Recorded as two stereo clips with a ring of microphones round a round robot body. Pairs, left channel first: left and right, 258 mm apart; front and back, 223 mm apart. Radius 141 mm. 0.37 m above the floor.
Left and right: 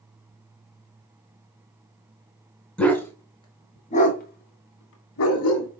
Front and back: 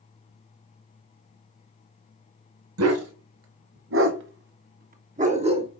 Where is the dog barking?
175° left, 1.7 m; by 5.7 s 115° left, 1.5 m.